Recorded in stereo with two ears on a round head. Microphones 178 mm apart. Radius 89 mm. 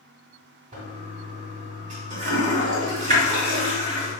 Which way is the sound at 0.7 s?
40° right (ahead or behind).